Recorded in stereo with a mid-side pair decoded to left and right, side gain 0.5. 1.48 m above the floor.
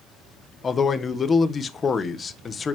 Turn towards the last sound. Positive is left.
turn(degrees=35)